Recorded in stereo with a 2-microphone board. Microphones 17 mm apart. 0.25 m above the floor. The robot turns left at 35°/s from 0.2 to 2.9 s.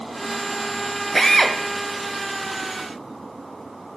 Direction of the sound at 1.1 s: 15° left (ahead or behind).